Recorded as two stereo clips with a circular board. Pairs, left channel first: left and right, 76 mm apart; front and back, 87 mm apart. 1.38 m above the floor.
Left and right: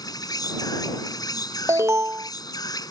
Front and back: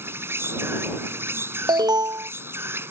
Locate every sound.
0.0 s an insect: 120° left
1.7 s an alarm: 140° right